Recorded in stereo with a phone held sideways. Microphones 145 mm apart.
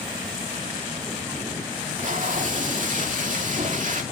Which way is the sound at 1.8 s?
60° right (ahead or behind).